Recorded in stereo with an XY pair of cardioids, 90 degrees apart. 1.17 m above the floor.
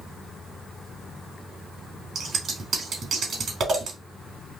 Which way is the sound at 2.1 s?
65° right.